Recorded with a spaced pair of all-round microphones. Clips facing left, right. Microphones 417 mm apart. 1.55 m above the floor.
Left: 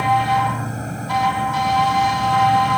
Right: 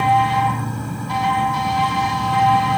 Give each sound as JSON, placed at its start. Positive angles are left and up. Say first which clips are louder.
{"t": 0.0, "sound": "an insect", "louder": "right 1 dB", "side_deg": -10}